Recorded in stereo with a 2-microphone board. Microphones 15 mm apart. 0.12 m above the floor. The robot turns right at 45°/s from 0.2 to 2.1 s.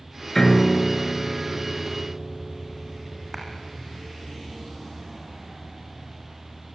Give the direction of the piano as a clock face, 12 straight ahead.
10 o'clock.